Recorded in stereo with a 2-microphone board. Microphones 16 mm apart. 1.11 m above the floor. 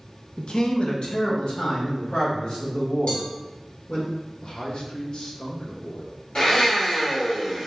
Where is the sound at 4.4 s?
55° left (ahead or behind), 0.9 m.